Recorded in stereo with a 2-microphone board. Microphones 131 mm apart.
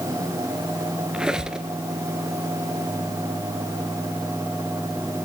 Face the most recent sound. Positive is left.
turn(degrees=-5)  # may be behind; listen again after turning